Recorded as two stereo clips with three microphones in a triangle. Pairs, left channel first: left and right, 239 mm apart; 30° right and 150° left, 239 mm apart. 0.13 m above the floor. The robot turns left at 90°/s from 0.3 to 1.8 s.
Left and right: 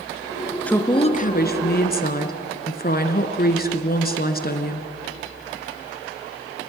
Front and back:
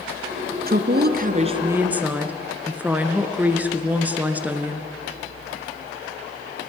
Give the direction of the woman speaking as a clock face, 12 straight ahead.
6 o'clock.